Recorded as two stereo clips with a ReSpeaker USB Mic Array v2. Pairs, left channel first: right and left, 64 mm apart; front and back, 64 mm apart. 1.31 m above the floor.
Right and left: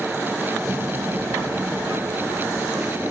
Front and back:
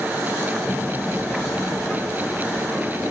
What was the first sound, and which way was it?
A child speaking, 35° left.